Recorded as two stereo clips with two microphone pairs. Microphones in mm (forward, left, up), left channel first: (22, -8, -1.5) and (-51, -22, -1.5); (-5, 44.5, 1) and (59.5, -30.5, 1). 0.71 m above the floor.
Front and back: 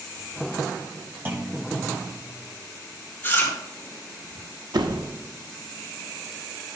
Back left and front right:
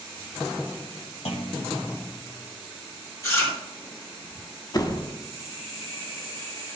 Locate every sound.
1.2 s a clunk: 130° left, 1.3 m
3.2 s chewing: 75° left, 3.5 m
4.7 s a door slam: straight behind, 0.7 m